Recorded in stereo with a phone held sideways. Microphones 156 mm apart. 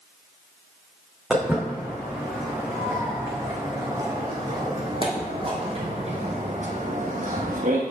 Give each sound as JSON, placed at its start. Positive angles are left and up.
{"t": 1.3, "sound": "footsteps", "side_deg": -5, "distance_m": 3.5}